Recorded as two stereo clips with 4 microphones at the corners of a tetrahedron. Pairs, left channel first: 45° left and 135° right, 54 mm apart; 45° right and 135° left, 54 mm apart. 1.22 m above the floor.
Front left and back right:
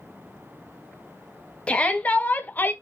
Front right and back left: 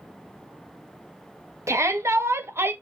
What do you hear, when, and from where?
1.7 s a shout: 110° left, 2 m; by 2.7 s 95° left, 1.4 m